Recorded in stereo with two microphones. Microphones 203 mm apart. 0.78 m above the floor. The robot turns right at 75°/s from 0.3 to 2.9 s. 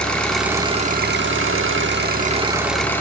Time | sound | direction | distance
0.0 | an engine running | 175° left | 1.0 m